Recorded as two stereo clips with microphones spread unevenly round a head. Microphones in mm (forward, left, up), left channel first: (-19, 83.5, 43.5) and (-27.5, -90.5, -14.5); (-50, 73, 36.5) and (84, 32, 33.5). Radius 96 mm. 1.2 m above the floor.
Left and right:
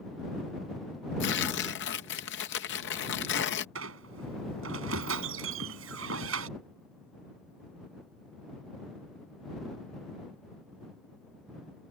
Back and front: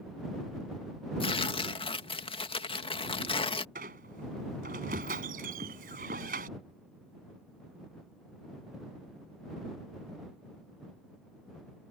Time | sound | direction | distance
1.2 | tearing paper | 110° left | ?
3.8 | a squeak | 65° right | ?